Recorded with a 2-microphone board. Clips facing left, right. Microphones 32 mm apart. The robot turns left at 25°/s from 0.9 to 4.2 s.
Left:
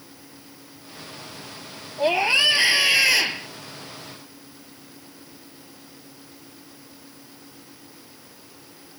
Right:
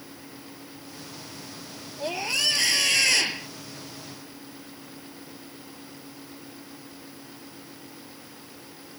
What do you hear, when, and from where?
2.0 s a scream: 45° left; by 3.5 s 5° left